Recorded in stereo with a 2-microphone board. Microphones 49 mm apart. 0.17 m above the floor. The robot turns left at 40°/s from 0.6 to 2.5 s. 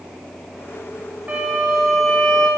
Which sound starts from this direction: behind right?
A violin, at 1.3 s.